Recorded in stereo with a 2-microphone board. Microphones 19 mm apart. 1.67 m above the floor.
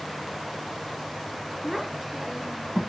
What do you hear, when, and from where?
1.6 s a child speaking: centre (ahead or behind), 0.8 m; by 2.8 s 25° right (ahead or behind), 1.2 m